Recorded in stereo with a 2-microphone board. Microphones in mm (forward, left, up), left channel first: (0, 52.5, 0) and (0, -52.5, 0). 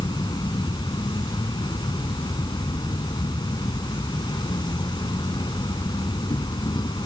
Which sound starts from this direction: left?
An insect, at 0.0 s.